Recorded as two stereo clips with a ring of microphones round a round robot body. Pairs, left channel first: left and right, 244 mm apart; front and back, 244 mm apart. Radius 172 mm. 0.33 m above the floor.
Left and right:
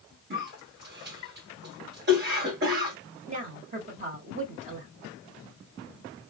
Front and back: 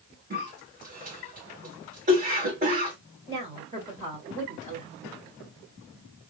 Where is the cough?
125° right, 1.9 m.